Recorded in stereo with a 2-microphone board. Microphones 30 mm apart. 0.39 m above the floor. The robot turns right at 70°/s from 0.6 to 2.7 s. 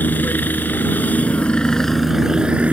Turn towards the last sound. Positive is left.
turn(degrees=-135)